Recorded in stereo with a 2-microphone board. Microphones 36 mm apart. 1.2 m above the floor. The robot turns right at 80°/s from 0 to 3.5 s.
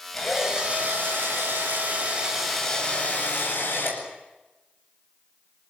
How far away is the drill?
About 9 m.